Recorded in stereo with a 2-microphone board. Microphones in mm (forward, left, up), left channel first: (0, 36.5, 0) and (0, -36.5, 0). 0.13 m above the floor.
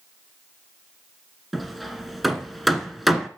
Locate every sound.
1.5 s hammering: centre (ahead or behind), 1.4 m